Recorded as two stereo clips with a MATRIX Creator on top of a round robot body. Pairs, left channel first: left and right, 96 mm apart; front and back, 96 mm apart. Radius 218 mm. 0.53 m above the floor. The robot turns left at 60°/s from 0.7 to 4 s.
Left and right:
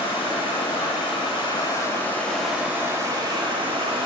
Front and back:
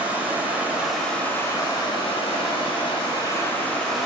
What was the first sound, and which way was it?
Running water, 105° left.